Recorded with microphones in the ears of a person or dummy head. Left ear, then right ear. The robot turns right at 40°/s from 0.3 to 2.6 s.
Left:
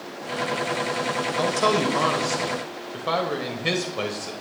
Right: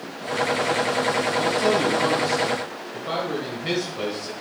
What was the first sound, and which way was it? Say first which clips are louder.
A man speaking: left 2 dB; 85° left.